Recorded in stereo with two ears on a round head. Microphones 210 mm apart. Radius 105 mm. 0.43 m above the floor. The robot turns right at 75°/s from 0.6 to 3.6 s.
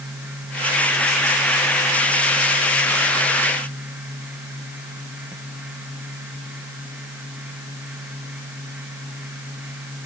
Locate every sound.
Only background noise.